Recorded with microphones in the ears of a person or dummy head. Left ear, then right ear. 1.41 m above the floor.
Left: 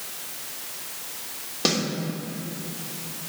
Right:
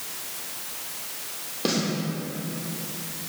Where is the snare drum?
35° left (ahead or behind), 2.5 m.